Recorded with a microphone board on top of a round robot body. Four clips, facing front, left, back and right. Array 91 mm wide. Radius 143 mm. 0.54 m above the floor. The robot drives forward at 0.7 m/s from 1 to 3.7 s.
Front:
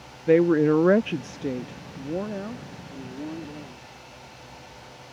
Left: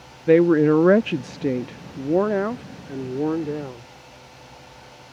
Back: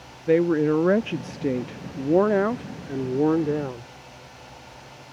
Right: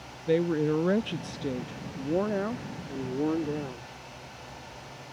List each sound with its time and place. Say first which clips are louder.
0.3 s a woman speaking: left 10 dB, front 1 dB; 80° left; by 3.9 s 165° left